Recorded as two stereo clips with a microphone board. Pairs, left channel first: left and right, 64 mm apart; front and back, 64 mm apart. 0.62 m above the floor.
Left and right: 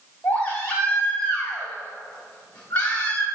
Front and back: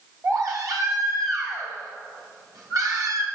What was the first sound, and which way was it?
A baby crying, 160° left.